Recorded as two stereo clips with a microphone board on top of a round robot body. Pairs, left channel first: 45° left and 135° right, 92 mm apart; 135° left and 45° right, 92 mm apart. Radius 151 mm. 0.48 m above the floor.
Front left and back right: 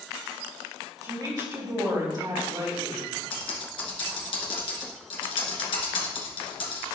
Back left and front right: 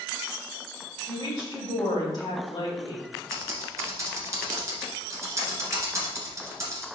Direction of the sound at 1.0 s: Straight behind.